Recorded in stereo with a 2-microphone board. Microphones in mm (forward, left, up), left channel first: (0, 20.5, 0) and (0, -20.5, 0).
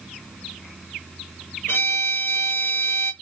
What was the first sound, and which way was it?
A violin, 80° left.